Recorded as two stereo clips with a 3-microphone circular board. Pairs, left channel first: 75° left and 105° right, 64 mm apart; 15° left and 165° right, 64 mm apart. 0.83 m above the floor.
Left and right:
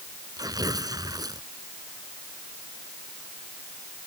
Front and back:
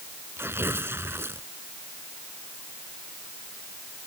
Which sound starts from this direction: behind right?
Tearing paper, at 0.4 s.